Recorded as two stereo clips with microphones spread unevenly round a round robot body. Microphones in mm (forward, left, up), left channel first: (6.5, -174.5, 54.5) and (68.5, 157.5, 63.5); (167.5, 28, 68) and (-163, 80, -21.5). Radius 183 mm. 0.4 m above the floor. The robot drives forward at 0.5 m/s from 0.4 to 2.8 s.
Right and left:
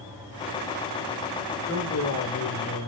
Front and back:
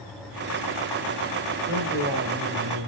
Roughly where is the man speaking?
Behind right.